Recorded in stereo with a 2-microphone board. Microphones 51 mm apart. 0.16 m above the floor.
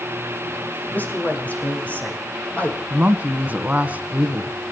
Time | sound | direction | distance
0.9 | a man speaking | 30° left (ahead or behind) | 6.5 m
2.9 | a woman speaking | 30° right (ahead or behind) | 1.3 m